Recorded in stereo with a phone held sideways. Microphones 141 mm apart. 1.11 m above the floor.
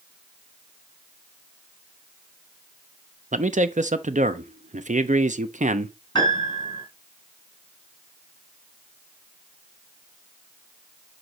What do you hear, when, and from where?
3.3 s a man speaking: 60° right (ahead or behind), 0.7 m
6.2 s a piano: 35° left (ahead or behind), 3.5 m